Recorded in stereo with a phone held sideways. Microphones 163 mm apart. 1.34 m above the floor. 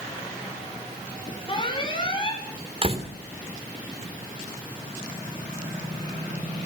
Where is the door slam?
40° right (ahead or behind), 2.5 m.